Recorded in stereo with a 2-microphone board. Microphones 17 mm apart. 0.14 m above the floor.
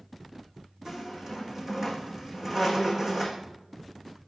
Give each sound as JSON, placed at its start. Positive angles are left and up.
{"t": 0.8, "sound": "a squeak", "side_deg": -25, "distance_m": 4.0}